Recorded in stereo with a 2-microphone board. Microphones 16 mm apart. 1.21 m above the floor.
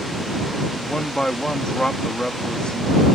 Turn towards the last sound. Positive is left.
turn(degrees=65)  # may be behind; listen again after turning